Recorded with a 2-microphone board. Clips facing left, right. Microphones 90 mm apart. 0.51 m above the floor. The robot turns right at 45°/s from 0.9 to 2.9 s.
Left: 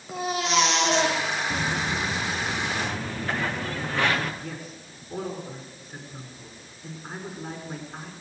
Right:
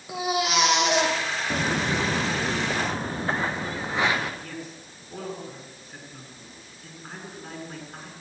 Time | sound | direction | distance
0.1 | a baby crying | 10° right (ahead or behind) | 9.5 m
1.5 | footsteps | 30° right (ahead or behind) | 2 m
4.4 | a man speaking | 5° left (ahead or behind) | 7 m